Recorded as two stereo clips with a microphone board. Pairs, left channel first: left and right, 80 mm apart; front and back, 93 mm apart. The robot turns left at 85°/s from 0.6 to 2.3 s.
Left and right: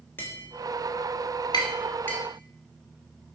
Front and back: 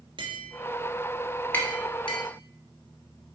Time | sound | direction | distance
0.2 | tapping | 150° left | 2.5 m